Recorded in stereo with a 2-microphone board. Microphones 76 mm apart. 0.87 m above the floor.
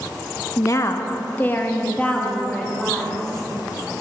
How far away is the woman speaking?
About 0.7 m.